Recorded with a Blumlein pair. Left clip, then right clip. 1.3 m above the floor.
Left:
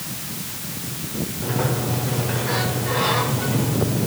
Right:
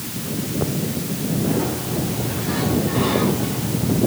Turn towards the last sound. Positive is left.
turn(degrees=30)